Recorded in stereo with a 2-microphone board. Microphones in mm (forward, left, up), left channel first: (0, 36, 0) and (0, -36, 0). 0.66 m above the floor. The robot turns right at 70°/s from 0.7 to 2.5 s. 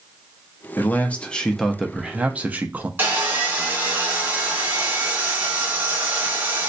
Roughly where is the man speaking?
Left.